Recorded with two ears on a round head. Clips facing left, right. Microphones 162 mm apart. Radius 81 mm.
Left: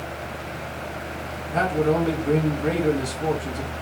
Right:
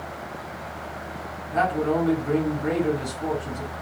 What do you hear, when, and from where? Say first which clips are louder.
1.5 s a man speaking: left 1 dB; 25° left (ahead or behind), 2.5 m